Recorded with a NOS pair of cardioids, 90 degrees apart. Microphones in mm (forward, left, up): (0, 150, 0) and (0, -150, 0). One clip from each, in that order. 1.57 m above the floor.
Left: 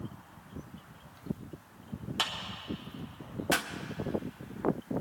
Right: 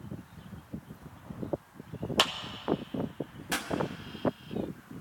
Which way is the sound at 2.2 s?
45° right.